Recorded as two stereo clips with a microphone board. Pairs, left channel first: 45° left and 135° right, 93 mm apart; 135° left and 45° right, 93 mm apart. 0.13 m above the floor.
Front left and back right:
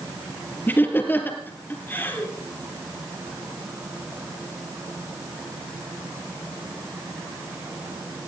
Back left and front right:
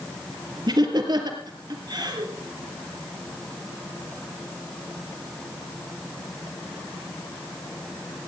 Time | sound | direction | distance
0.7 | laughter | 20° right | 3.5 m